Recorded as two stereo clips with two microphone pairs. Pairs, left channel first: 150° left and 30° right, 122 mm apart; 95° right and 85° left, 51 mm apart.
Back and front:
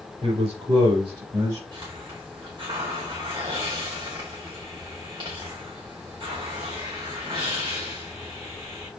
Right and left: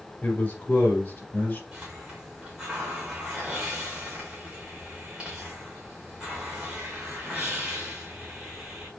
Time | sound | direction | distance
0.2 | a man speaking | 30° right | 2 m
1.7 | a hiss | 15° left | 2.5 m